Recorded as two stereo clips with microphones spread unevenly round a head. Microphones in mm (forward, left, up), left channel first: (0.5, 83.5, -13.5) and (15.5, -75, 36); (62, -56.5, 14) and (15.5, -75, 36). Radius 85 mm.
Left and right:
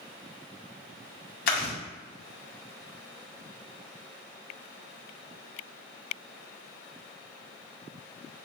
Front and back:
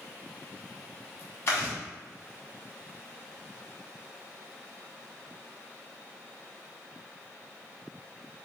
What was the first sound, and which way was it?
Chewing, 80° left.